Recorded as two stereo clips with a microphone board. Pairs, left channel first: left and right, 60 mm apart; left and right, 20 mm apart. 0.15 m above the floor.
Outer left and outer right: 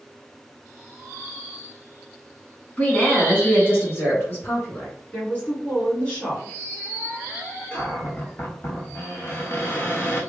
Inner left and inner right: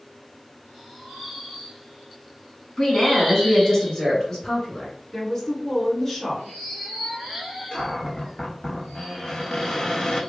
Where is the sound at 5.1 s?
25° left (ahead or behind), 1.6 m.